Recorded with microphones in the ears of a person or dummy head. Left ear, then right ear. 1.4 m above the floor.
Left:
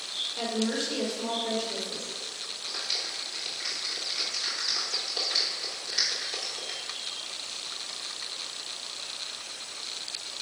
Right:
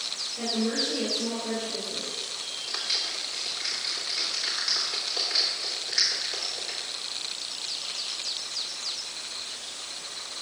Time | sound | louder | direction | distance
0.4 | a woman speaking | right 3 dB | 65° left (ahead or behind) | 2 m
2.7 | a clap | right 3 dB | 15° right (ahead or behind) | 2 m